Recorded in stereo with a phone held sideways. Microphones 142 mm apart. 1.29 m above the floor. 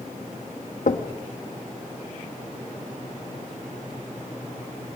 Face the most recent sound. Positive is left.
turn(degrees=65)  # may be behind; listen again after turning